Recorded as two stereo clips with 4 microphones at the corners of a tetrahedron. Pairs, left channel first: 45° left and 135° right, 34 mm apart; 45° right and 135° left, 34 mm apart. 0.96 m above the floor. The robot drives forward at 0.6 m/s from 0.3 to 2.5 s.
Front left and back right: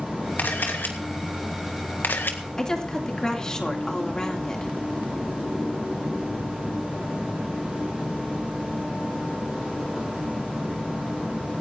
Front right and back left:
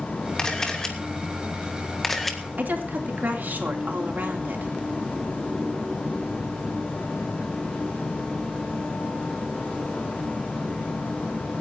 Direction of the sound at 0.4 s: 25° left.